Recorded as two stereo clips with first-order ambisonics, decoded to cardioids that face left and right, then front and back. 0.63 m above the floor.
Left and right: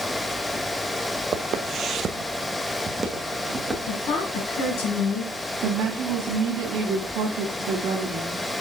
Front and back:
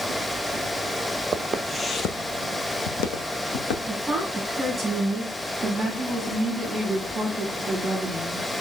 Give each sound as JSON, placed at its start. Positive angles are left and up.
{"t": 1.3, "sound": "footsteps", "azimuth_deg": -130, "distance_m": 0.8}
{"t": 3.9, "sound": "a woman speaking", "azimuth_deg": 100, "distance_m": 4.5}
{"t": 5.6, "sound": "a woman speaking", "azimuth_deg": -110, "distance_m": 1.4}